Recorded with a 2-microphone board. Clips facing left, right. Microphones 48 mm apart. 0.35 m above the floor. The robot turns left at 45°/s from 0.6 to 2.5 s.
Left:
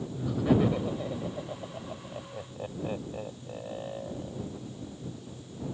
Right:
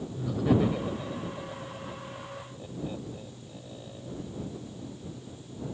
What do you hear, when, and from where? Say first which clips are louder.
0.1 s laughter: even; 5° left (ahead or behind); by 4.4 s 45° left (ahead or behind)